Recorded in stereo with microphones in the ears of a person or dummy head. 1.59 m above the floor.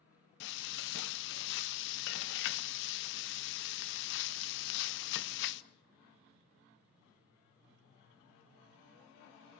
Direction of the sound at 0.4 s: 65° left (ahead or behind).